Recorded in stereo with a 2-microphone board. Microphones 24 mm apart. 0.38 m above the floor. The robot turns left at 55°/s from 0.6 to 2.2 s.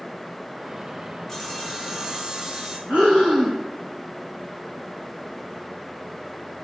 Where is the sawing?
15° left, 2.0 m; by 2.8 s 35° right, 2.0 m.